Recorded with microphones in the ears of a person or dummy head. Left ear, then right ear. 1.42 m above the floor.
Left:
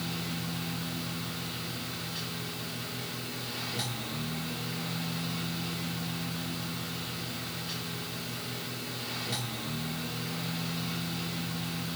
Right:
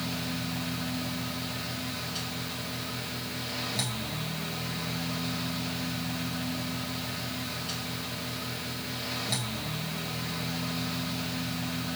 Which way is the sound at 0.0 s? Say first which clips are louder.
Right 2 dB; 20° right (ahead or behind).